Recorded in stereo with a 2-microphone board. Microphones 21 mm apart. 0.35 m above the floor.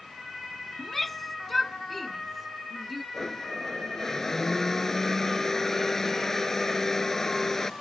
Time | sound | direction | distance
0.8 | a shout | 10° left (ahead or behind) | ?
3.1 | a blender | 20° left (ahead or behind) | ?